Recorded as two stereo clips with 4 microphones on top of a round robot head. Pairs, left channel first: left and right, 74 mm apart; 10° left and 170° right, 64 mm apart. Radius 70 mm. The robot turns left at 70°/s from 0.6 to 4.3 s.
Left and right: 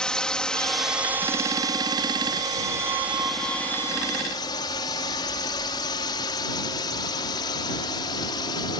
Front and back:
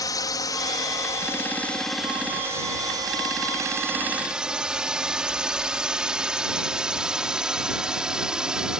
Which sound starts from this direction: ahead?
A drone, at 0.0 s.